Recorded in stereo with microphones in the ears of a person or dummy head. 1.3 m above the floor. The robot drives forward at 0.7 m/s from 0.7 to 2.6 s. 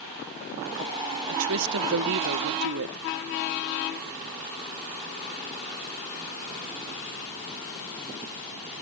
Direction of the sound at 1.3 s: 85° right.